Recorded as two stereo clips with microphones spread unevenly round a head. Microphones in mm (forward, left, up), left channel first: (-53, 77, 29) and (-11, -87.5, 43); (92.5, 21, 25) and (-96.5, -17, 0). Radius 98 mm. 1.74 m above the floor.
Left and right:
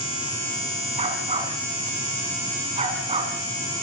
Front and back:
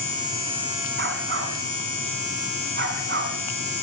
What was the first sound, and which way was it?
A dog barking, 130° right.